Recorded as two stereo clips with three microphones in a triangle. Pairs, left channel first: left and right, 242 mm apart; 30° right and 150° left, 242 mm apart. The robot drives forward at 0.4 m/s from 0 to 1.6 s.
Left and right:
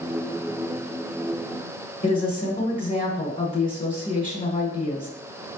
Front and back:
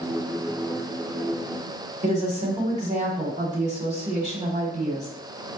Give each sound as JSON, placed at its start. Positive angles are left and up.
{"t": 2.0, "sound": "a woman speaking", "azimuth_deg": 115, "distance_m": 1.2}